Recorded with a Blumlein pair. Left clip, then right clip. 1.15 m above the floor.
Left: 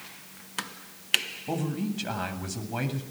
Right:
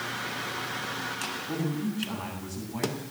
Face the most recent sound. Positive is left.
turn(degrees=50)